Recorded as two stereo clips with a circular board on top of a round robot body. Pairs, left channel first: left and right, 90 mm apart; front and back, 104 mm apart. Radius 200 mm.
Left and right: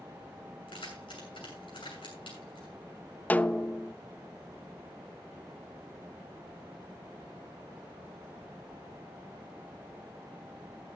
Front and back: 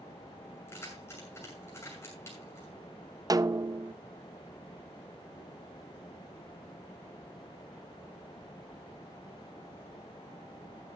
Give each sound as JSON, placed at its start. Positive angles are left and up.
{"t": 0.7, "sound": "keys jangling", "azimuth_deg": 65, "distance_m": 6.5}
{"t": 3.3, "sound": "a snare drum", "azimuth_deg": 150, "distance_m": 0.7}